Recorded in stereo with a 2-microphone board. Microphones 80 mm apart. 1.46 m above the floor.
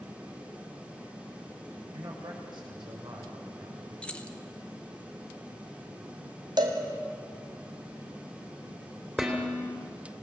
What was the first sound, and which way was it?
A man speaking, 80° right.